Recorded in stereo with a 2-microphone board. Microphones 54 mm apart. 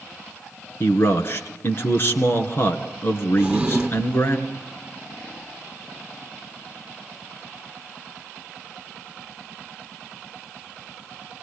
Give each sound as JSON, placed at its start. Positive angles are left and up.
{"t": 0.8, "sound": "a man speaking", "side_deg": 45, "distance_m": 2.0}
{"t": 3.4, "sound": "a drawer", "side_deg": -10, "distance_m": 1.6}